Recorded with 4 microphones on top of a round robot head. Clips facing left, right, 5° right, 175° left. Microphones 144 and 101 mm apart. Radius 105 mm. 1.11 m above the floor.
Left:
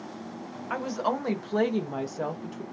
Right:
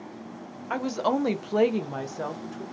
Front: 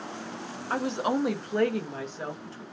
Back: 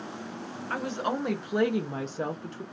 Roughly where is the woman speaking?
Ahead right.